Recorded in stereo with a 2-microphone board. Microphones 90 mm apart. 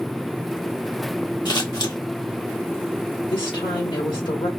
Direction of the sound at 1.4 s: 55° left (ahead or behind).